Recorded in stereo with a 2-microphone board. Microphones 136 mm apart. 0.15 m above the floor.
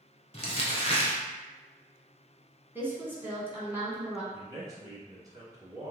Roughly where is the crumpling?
Left.